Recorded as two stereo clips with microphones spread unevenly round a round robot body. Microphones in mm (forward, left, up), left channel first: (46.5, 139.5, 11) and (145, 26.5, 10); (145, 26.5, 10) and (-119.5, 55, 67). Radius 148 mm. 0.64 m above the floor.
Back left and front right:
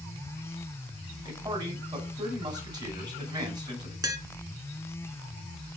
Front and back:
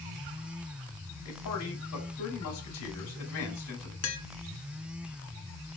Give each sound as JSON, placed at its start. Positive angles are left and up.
{"t": 1.2, "sound": "a man speaking", "azimuth_deg": 10, "distance_m": 3.0}
{"t": 4.0, "sound": "tapping", "azimuth_deg": 20, "distance_m": 1.8}